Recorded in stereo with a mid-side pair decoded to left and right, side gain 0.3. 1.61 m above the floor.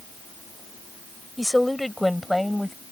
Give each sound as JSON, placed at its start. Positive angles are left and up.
{"t": 1.4, "sound": "a woman speaking", "azimuth_deg": 10}